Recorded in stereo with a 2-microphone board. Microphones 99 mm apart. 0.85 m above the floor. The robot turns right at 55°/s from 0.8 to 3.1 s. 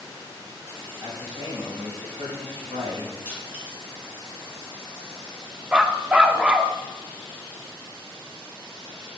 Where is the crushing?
20° right (ahead or behind), 3 m.